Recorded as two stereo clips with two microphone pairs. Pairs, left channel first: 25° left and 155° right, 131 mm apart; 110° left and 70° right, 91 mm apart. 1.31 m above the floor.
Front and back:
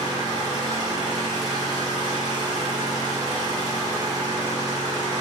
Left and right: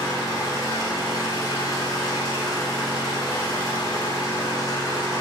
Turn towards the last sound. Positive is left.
turn(degrees=155)